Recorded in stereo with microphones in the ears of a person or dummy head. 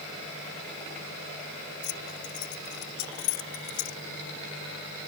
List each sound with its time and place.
1.8 s keys jangling: 65° left (ahead or behind); by 4.0 s 75° left (ahead or behind)